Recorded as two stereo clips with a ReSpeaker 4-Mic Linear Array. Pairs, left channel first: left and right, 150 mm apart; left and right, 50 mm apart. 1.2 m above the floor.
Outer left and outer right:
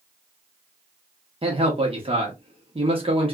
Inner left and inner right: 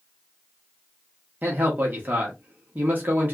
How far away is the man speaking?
About 0.8 m.